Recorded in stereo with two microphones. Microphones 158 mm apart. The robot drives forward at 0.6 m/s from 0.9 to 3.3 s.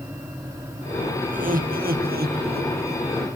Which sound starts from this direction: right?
Laughter, at 1.3 s.